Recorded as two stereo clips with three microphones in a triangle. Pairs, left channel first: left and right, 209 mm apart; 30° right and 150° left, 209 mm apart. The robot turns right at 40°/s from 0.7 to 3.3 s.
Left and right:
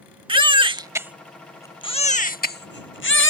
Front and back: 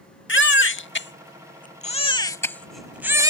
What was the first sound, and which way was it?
A baby crying, 25° right.